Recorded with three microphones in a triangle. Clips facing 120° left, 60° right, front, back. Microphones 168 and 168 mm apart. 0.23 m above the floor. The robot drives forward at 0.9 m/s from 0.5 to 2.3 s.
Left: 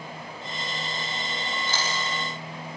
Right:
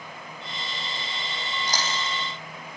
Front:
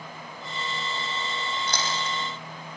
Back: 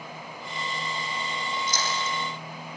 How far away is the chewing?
About 8 m.